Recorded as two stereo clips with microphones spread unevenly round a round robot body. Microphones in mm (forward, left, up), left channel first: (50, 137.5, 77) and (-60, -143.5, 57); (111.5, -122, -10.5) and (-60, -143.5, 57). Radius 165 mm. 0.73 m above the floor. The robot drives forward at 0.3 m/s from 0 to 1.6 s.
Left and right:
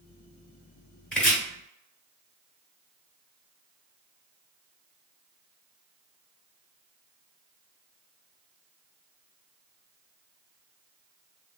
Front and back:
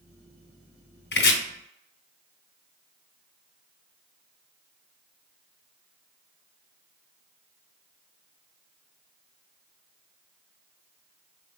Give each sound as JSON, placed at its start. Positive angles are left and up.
{"t": 1.1, "sound": "chopping", "azimuth_deg": -15, "distance_m": 1.2}